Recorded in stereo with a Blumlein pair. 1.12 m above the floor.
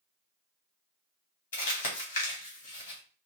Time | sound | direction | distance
1.5 | crumpling | 65° left | 2 m